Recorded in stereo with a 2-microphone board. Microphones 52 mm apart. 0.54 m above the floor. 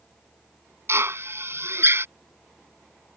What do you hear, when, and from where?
0.9 s a drill: 60° right (ahead or behind)